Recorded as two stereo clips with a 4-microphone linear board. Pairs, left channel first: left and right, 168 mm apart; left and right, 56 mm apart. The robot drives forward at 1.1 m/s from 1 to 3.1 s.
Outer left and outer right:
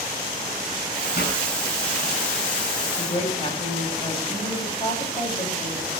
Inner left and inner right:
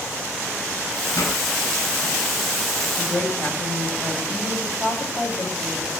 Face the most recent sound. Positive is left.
turn(degrees=30)  # may be behind; listen again after turning